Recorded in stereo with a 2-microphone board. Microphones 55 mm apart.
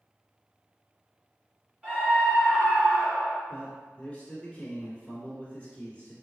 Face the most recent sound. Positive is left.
turn(degrees=25)  # may be behind; listen again after turning